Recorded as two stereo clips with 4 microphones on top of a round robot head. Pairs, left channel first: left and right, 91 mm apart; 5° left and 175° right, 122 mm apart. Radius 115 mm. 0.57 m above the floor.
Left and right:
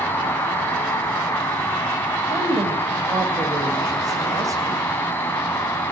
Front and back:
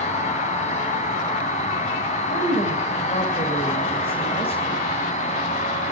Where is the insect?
20° left, 5.5 m.